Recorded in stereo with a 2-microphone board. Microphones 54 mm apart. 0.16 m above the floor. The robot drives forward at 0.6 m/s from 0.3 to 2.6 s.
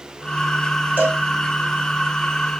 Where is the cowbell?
35° right (ahead or behind), 3 m; by 1.2 s 30° right (ahead or behind), 3.5 m.